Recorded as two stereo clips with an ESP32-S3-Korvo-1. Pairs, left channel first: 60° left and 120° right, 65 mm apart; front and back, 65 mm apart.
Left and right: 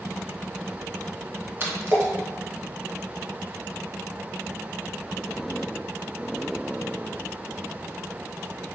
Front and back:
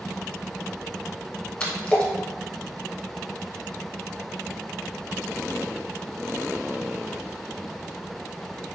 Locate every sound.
1.6 s a splash: 65° right, 0.8 m